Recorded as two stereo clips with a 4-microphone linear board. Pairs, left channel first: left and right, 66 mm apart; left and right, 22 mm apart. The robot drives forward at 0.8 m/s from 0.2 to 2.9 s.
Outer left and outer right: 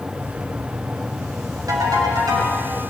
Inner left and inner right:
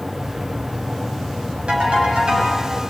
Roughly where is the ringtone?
Right.